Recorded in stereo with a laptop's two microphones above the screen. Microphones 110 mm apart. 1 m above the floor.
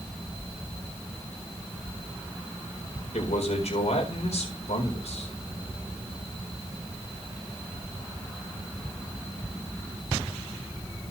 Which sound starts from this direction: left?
A man speaking, at 3.1 s.